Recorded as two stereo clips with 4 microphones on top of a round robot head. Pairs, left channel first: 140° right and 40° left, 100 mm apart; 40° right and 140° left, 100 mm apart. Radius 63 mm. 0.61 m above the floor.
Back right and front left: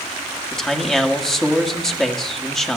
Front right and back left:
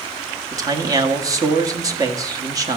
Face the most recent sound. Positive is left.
turn(degrees=135)